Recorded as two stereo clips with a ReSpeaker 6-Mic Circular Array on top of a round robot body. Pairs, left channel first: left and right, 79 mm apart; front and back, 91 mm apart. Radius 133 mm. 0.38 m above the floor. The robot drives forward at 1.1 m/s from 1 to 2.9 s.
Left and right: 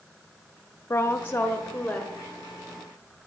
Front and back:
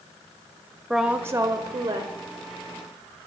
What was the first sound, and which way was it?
A woman speaking, 95° left.